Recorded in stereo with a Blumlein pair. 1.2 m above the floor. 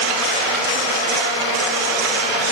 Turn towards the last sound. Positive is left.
No sound to turn to.